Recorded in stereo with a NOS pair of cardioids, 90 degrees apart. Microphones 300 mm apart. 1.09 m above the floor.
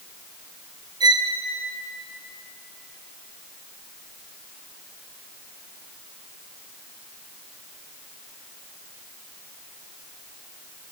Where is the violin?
15° right, 1.0 m.